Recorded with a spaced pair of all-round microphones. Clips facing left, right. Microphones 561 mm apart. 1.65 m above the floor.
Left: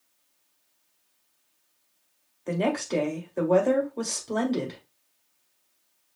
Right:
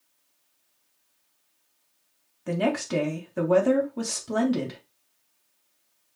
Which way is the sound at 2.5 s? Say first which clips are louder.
Even; 35° right (ahead or behind).